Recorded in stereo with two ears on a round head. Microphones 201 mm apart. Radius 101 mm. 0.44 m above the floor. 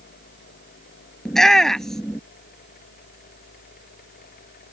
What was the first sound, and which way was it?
A shout, 5° left (ahead or behind).